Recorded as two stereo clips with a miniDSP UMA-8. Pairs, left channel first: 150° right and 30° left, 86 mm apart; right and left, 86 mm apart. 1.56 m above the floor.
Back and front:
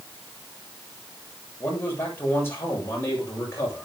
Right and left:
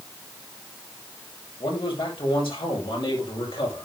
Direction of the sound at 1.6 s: 85° right.